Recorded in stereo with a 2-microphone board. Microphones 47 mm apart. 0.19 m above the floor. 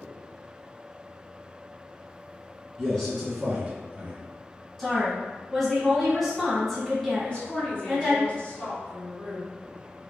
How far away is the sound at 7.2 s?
About 1.6 m.